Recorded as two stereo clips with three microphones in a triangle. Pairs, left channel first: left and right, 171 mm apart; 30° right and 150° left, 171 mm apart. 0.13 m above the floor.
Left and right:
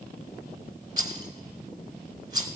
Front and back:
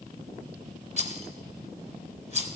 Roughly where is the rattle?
Ahead right.